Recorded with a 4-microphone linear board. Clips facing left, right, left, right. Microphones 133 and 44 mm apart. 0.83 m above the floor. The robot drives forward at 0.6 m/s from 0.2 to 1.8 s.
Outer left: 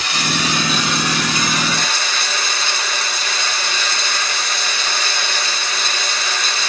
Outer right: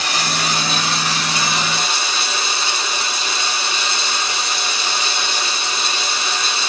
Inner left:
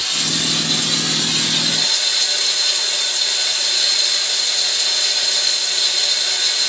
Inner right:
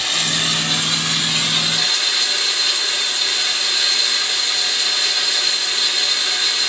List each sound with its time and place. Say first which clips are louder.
0.0 s running water: outer left 1 dB, inner right 2 dB; 40° right (ahead or behind), 1.5 m; by 6.7 s 25° right (ahead or behind), 2.5 m